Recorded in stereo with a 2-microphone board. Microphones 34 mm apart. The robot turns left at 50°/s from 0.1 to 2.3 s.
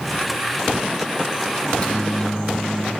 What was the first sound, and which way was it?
A microwave, 55° left.